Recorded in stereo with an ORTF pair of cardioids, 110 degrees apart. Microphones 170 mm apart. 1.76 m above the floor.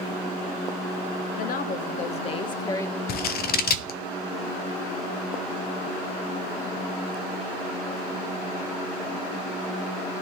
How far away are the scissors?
About 0.9 m.